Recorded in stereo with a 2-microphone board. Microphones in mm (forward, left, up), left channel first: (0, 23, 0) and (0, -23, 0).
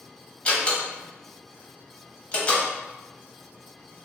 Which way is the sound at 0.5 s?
25° left (ahead or behind).